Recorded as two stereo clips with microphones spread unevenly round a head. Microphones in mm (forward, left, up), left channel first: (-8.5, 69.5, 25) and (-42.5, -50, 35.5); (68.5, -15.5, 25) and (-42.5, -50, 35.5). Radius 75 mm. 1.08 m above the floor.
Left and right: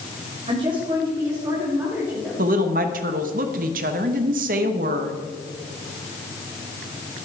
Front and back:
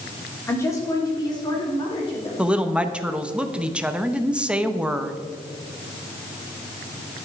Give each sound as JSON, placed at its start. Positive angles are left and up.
{"t": 0.5, "sound": "a woman speaking", "azimuth_deg": -50, "distance_m": 3.0}
{"t": 2.4, "sound": "a woman speaking", "azimuth_deg": -80, "distance_m": 1.0}